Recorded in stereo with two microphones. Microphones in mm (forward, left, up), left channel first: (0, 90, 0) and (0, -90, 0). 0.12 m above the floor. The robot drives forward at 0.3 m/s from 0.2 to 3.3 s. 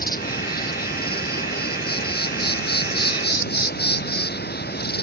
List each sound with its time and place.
0.0 s an insect: 65° left (ahead or behind); by 5.0 s 75° left (ahead or behind)